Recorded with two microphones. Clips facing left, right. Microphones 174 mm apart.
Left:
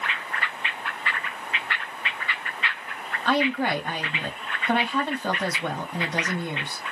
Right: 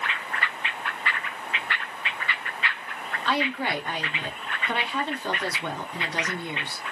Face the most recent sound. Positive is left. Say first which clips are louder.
# left 4 dB
turn(degrees=50)  # may be behind; listen again after turning